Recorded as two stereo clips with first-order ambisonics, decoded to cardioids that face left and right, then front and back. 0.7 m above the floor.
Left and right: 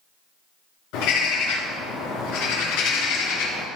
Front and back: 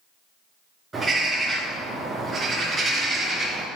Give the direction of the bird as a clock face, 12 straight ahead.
8 o'clock.